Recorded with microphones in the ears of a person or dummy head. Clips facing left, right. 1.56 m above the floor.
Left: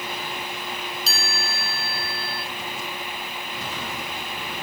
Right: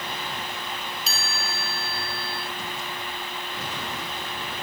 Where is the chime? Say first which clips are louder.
Left 2 dB; 35° left (ahead or behind), 3 m.